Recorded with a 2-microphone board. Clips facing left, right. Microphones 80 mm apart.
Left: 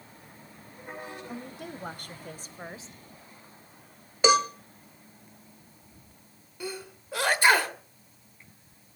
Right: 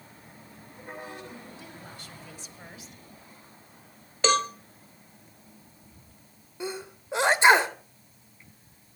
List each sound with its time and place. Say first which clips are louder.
1.3 s a woman speaking: left 5 dB; 65° left (ahead or behind), 2 m; by 3.0 s 25° left (ahead or behind), 1.2 m
4.2 s a cowbell: left 2 dB; 10° left (ahead or behind), 1.0 m
6.6 s a sneeze: right 2 dB; 20° right (ahead or behind), 1.3 m